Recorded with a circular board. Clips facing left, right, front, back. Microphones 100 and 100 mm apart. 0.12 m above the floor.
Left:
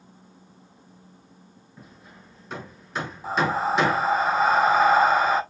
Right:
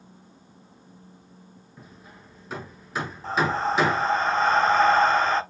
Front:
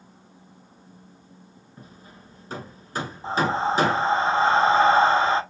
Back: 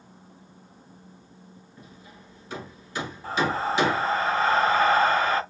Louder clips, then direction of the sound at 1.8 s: Even, front 3 dB; straight ahead.